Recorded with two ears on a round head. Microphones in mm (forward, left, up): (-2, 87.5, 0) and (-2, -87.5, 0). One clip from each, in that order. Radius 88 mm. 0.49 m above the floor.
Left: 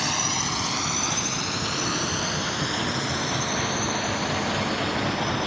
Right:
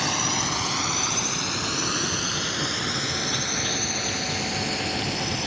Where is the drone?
5° left (ahead or behind); by 5.5 s 30° right (ahead or behind).